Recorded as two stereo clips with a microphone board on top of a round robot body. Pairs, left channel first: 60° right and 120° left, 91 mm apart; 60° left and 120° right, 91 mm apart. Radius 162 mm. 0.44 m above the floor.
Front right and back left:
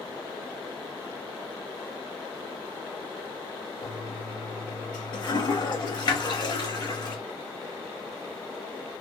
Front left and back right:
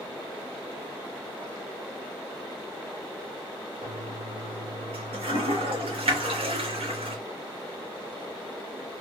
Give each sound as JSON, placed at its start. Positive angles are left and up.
{"t": 3.8, "sound": "a toilet flushing", "azimuth_deg": -105, "distance_m": 0.9}